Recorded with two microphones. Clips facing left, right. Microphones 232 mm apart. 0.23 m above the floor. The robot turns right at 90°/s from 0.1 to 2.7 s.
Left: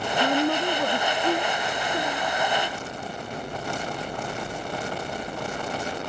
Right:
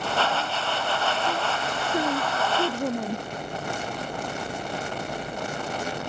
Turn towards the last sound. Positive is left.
turn(degrees=-95)